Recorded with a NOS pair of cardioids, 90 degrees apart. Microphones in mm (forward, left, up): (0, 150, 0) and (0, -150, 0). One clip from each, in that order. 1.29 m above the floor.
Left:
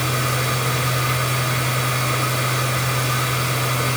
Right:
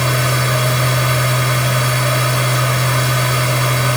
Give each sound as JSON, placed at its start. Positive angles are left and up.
{"t": 0.0, "sound": "a machine running", "azimuth_deg": -55, "distance_m": 6.0}